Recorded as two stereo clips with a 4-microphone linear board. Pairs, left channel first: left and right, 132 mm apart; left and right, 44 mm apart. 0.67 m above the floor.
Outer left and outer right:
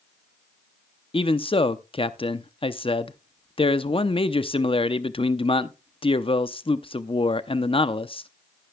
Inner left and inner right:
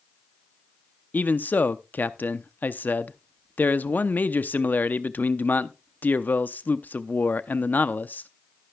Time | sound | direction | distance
1.1 | a man speaking | 45° left (ahead or behind) | 0.6 m